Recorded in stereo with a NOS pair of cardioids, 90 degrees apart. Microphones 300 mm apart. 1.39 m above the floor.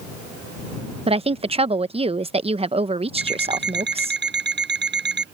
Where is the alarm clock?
35° right.